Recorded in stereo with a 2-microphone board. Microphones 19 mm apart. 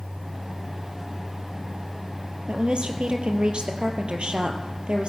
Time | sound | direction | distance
2.5 | a woman speaking | 65° right (ahead or behind) | 2.5 m